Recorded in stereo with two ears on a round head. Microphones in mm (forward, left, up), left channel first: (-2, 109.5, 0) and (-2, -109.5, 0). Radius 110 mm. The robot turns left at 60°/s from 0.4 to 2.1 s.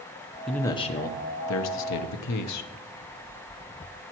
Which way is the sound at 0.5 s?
Straight behind.